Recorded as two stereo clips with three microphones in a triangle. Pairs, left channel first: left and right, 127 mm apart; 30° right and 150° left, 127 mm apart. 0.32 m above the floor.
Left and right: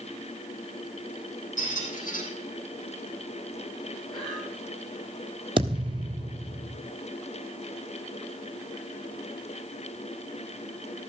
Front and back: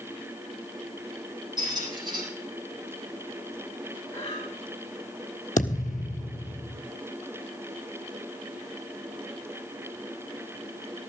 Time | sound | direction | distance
1.6 | a squeak | 95° left | 4.5 m
4.1 | breathing | 5° left | 9 m
5.6 | a thud | 40° right | 1.6 m